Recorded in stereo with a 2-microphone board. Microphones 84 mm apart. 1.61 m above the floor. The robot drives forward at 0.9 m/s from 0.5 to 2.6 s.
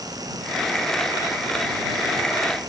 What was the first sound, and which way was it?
Only background noise.